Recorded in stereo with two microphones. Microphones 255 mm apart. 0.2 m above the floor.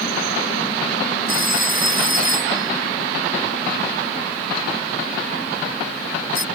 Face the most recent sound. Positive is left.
turn(degrees=-55)  # may be behind; listen again after turning